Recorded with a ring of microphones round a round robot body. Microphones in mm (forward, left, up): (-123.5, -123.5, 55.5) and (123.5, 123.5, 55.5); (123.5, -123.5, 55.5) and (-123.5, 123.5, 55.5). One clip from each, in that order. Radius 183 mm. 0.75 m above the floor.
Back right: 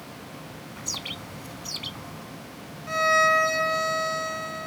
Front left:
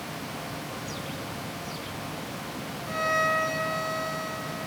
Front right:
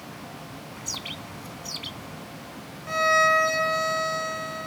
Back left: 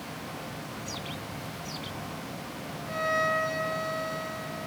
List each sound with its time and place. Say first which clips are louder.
0.8 s a bird: back right 2 dB, front right 7 dB; 100° right
2.9 s a violin: back right 5 dB, front right 8 dB; 75° right